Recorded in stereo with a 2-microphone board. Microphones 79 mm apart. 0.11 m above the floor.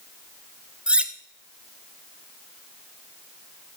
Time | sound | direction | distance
0.9 | cutlery clinking | 15° right (ahead or behind) | 0.6 m